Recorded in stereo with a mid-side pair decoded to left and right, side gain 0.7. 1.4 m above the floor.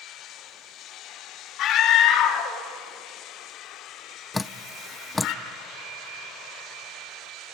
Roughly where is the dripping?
Ahead.